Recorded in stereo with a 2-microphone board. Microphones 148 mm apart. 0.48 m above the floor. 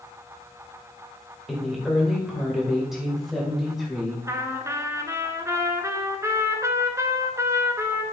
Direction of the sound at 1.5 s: Centre (ahead or behind).